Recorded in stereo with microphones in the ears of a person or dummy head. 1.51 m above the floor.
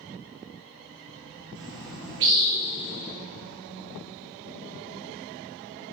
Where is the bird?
70° right (ahead or behind), 1.7 m.